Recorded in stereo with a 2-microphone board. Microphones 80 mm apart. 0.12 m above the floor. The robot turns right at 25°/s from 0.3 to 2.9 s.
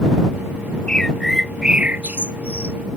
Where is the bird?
5° left (ahead or behind); by 2.8 s 35° right (ahead or behind).